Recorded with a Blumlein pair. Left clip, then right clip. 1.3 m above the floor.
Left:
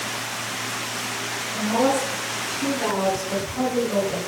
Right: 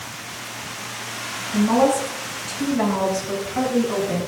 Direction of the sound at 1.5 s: 40° right.